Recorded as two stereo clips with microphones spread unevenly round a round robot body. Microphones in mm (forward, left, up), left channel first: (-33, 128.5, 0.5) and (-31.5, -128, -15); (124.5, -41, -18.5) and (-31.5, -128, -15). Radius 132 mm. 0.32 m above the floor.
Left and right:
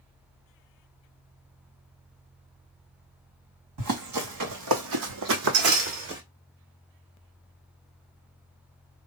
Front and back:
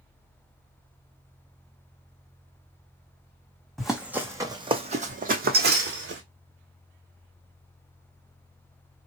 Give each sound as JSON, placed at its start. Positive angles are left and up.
{"t": 3.8, "sound": "running footsteps", "azimuth_deg": -60, "distance_m": 1.2}